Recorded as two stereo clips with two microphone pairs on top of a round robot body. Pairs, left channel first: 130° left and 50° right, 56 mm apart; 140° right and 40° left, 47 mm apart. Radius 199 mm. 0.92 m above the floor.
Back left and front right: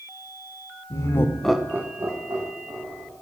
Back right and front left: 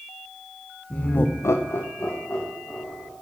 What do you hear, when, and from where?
0.9 s laughter: 160° left, 0.8 m; by 3.1 s 70° right, 2 m